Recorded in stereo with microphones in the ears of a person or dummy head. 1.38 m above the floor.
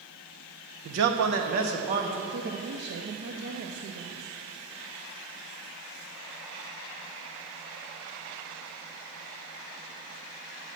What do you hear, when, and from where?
0.8 s a man speaking: 70° right (ahead or behind), 0.7 m; by 2.2 s 35° right (ahead or behind), 1.3 m
2.3 s a woman speaking: 65° right (ahead or behind), 0.6 m